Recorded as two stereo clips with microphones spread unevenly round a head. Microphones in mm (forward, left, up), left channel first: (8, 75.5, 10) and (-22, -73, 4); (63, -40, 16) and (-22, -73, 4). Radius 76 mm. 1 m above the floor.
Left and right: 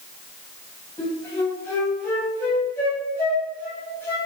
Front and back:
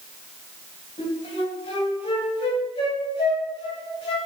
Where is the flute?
5° left, 3 m.